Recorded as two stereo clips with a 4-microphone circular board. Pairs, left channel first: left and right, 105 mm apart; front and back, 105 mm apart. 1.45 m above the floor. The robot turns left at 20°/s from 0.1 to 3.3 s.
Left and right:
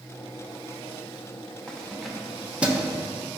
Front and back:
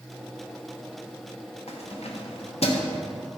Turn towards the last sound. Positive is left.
turn(degrees=-25)